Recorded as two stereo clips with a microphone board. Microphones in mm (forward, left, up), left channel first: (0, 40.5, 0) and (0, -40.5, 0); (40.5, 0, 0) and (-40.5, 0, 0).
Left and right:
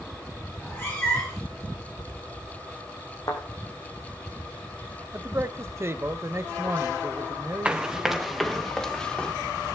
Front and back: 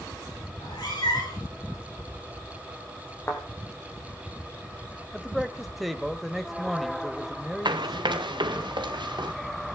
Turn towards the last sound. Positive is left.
turn(degrees=165)